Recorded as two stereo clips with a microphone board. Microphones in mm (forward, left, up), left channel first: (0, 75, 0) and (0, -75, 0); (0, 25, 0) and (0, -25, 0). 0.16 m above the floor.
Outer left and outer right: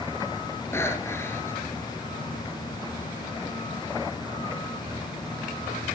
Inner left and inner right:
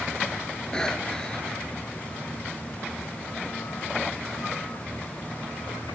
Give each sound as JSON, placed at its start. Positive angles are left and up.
{"t": 0.7, "sound": "breathing", "side_deg": 15, "distance_m": 2.5}